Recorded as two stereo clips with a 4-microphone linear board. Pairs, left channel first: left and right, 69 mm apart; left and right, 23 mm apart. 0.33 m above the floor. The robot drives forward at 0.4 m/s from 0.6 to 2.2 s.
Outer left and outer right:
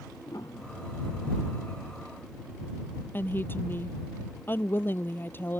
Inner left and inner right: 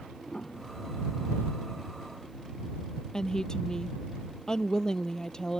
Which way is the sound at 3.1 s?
30° left (ahead or behind).